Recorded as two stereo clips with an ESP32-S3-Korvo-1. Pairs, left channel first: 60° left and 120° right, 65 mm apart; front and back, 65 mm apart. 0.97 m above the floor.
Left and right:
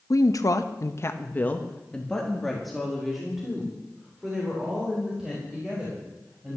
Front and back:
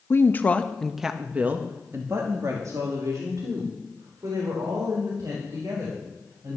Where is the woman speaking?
45° left, 1.3 m; by 6.6 s 165° left, 6 m.